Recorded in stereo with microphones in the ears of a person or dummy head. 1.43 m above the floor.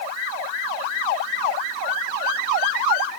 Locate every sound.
Only background noise.